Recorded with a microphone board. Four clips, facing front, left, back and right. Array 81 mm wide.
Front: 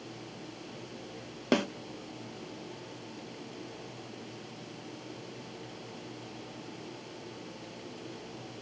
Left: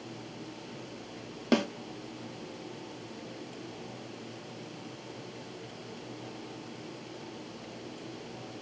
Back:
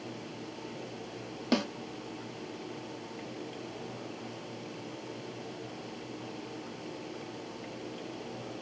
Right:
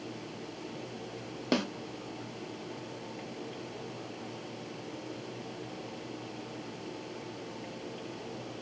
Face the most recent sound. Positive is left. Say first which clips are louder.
# left 3 dB, front 2 dB
turn(degrees=15)